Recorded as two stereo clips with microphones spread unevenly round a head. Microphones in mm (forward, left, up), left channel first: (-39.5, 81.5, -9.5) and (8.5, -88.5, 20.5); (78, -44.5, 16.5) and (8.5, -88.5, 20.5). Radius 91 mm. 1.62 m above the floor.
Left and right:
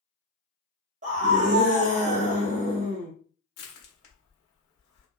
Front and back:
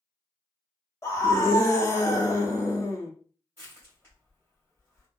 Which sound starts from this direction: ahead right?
A scream, at 1.0 s.